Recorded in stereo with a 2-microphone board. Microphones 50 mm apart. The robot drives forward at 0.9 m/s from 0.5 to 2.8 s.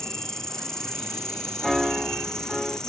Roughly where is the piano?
Centre.